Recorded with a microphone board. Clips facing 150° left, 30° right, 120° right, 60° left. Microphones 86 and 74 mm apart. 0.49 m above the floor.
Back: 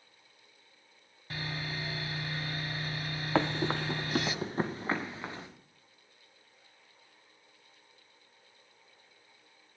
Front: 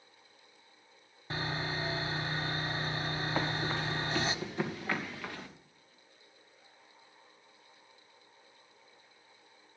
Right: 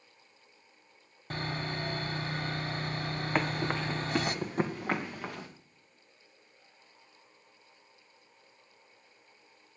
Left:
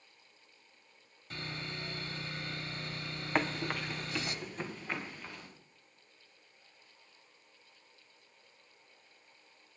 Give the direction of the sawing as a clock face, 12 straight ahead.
3 o'clock.